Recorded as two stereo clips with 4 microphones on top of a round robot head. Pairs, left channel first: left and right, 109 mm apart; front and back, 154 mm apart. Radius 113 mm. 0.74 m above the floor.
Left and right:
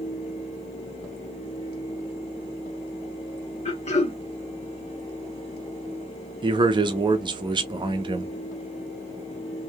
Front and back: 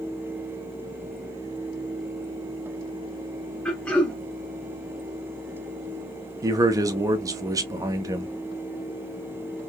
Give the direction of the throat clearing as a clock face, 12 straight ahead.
9 o'clock.